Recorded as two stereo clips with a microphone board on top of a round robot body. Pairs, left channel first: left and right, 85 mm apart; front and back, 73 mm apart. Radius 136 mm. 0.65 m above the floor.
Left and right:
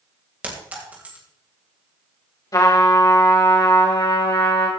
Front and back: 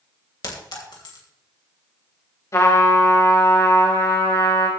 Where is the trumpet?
45° left, 3.5 m.